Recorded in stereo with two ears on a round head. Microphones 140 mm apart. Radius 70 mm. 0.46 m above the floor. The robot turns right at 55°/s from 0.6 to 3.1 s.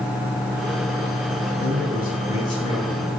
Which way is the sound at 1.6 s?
100° left.